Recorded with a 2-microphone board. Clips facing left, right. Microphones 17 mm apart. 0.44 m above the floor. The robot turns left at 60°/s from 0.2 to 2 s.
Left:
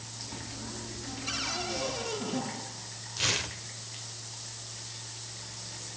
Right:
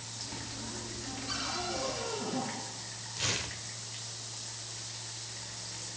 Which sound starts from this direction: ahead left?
A cupboard door, at 1.3 s.